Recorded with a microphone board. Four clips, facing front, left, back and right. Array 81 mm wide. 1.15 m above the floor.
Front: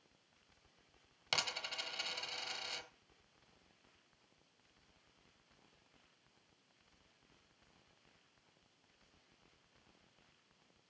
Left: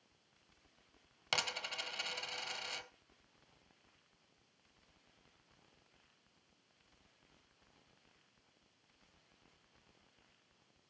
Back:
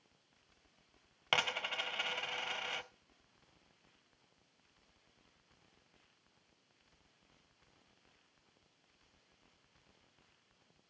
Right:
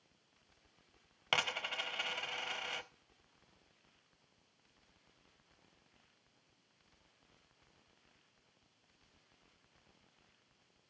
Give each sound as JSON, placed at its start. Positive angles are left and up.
{"t": 1.3, "sound": "a dropped coin", "azimuth_deg": -150, "distance_m": 1.0}